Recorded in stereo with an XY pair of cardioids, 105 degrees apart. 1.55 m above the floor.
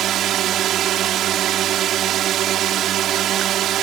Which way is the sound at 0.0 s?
70° right.